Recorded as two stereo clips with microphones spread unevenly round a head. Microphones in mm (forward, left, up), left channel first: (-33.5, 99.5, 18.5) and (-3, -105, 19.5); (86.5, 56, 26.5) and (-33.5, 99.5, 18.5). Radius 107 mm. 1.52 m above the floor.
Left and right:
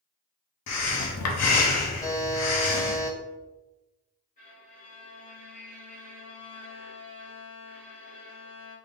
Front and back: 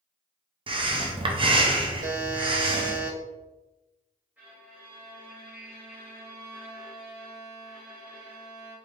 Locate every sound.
0.7 s breathing: 110° left, 0.8 m
2.0 s a buzzer: 175° left, 1.0 m
4.4 s a violin: 85° left, 1.4 m